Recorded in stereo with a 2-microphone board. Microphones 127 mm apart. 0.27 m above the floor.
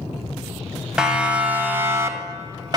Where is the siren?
5° right (ahead or behind), 2.5 m; by 2.8 s 35° right (ahead or behind), 2 m.